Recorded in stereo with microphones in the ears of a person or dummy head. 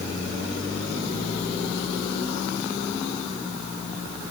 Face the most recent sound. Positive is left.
No sound to turn to.